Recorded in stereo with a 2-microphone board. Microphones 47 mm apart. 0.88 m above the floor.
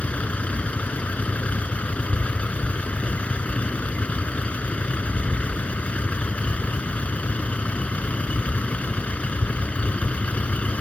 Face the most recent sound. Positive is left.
turn(degrees=25)  # may be behind; listen again after turning